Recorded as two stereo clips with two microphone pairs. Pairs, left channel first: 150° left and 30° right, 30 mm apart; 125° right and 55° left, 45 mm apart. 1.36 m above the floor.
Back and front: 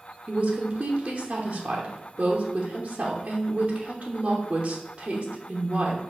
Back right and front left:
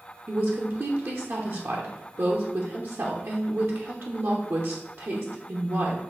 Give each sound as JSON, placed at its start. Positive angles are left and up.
{"t": 0.3, "sound": "a woman speaking", "azimuth_deg": 30, "distance_m": 1.0}